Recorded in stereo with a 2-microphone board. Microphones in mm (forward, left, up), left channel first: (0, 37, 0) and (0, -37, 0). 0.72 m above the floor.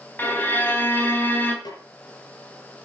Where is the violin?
25° left (ahead or behind), 3 m.